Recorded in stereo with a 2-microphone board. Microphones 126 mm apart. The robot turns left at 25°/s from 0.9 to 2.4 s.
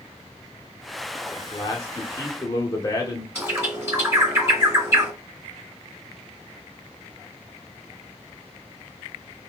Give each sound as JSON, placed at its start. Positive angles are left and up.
{"t": 1.4, "sound": "a man speaking", "side_deg": 35, "distance_m": 0.8}
{"t": 3.4, "sound": "a bird", "side_deg": -20, "distance_m": 2.0}